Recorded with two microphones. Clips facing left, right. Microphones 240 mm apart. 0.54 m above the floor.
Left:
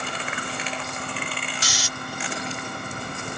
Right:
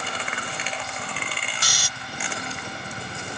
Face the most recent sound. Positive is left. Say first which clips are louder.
# left 3 dB
turn(degrees=-55)  # may be behind; listen again after turning